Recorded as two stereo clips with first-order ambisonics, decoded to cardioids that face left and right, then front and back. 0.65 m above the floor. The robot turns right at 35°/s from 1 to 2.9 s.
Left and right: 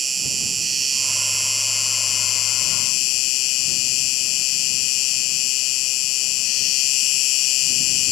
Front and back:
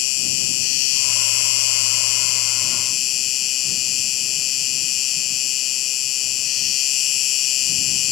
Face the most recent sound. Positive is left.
turn(degrees=50)